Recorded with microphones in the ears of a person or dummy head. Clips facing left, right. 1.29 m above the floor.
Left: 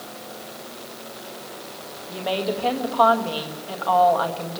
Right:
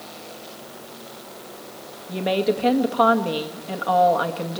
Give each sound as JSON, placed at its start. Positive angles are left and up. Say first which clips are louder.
{"t": 2.1, "sound": "a woman speaking", "louder": "right 4 dB", "side_deg": -35, "distance_m": 1.7}